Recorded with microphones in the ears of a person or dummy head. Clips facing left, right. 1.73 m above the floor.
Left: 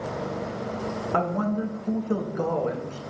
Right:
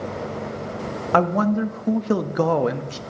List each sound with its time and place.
1.1 s a man speaking: 75° right (ahead or behind), 0.7 m